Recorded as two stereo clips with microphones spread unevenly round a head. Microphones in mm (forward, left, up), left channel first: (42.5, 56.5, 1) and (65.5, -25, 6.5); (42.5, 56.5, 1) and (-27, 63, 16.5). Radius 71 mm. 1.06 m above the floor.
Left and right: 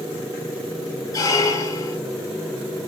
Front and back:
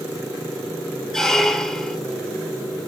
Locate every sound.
1.1 s a squeak: 90° left, 0.8 m